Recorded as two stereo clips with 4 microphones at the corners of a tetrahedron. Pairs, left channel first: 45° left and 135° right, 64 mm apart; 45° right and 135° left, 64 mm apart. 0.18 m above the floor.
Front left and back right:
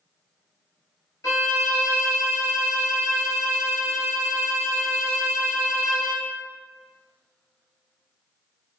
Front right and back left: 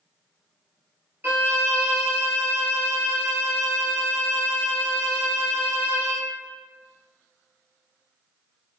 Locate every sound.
1.2 s a violin: 75° left, 0.9 m